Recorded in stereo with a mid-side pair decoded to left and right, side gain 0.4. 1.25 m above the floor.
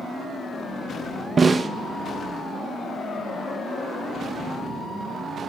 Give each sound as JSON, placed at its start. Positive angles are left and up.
{"t": 1.4, "sound": "a snare drum", "azimuth_deg": -35, "distance_m": 0.8}